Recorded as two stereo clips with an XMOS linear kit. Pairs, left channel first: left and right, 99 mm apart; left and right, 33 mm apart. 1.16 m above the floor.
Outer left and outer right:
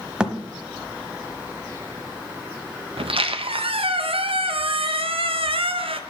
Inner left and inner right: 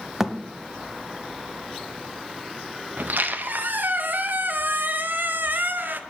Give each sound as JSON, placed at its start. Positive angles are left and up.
{"t": 0.2, "sound": "a thud", "side_deg": -10, "distance_m": 1.1}
{"t": 3.0, "sound": "a squeak", "side_deg": -75, "distance_m": 0.7}